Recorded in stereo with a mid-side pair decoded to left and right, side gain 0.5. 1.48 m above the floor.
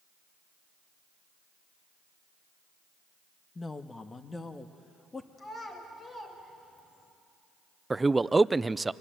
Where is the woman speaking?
25° left, 1.4 m; by 5.3 s 20° left, 2.5 m.